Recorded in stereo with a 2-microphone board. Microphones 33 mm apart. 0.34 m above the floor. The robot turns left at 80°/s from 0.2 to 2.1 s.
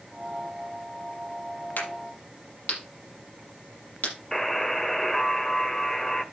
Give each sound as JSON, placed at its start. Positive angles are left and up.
{"t": 1.8, "sound": "a crack", "side_deg": 80, "distance_m": 6.5}
{"t": 4.3, "sound": "a buzzer", "side_deg": 15, "distance_m": 1.3}